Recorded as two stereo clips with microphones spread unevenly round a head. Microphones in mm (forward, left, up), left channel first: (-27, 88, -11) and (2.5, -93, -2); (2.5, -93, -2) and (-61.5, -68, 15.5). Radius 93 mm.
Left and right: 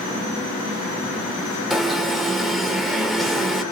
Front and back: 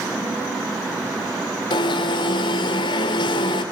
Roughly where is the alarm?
Ahead.